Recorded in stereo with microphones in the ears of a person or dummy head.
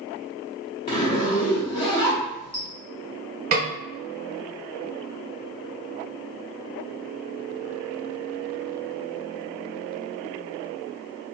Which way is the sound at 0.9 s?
25° left (ahead or behind).